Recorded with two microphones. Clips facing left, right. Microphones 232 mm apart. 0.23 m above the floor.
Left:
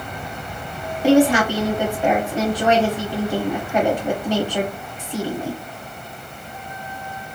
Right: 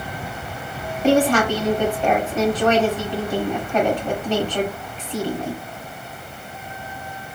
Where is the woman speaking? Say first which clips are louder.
Left 2 dB; 10° left (ahead or behind), 1.0 m.